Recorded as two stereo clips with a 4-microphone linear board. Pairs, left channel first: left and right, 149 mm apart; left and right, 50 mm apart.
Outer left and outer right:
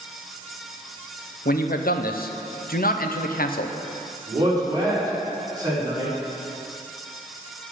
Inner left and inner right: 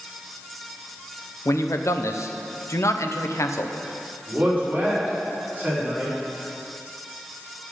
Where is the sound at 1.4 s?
80° left, 0.7 m.